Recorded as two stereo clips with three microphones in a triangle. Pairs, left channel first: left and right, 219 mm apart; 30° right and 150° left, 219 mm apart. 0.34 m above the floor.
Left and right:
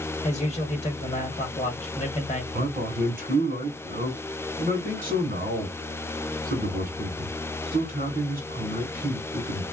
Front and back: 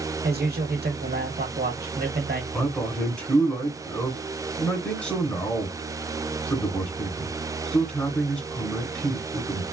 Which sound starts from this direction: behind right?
A man speaking, at 2.5 s.